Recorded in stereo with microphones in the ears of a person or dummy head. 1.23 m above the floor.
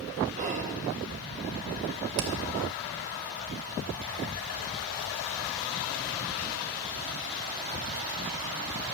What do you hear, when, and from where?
0.4 s whispering: 40° right (ahead or behind), 1.3 m
2.2 s hammering: 55° right (ahead or behind), 1.1 m